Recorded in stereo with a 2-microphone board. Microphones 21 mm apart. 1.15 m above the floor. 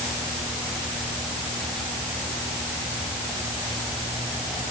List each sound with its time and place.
Only background noise.